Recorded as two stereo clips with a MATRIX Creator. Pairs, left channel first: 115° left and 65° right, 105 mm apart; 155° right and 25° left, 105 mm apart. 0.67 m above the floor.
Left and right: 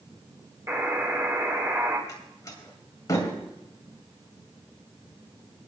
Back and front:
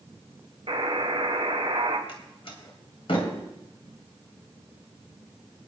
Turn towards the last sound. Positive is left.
turn(degrees=170)